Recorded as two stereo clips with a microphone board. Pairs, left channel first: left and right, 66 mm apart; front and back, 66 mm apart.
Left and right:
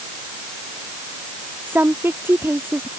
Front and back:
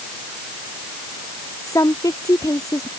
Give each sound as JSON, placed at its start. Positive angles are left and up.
{"t": 1.7, "sound": "a woman speaking", "azimuth_deg": -30}